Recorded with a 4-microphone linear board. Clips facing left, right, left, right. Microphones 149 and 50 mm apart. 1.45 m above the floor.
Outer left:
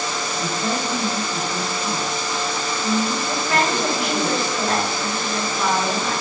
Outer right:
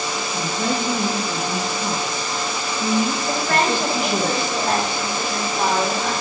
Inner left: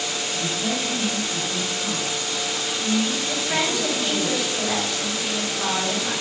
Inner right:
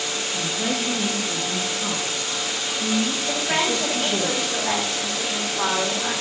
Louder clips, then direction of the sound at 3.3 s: Outer right 1 dB, inner right 1 dB; 55° right (ahead or behind).